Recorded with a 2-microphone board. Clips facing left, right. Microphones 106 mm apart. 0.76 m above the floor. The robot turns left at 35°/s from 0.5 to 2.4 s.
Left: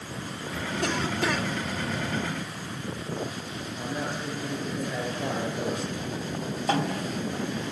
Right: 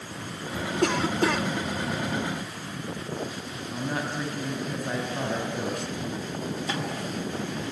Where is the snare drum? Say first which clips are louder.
Left 4 dB; 50° left (ahead or behind), 5 m.